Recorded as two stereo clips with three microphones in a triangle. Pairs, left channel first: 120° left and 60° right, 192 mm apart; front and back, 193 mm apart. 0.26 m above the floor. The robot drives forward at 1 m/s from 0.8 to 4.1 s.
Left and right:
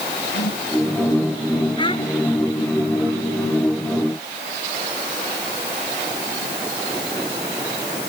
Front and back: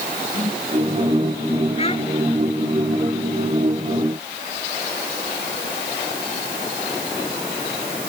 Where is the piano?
I don't hear a piano.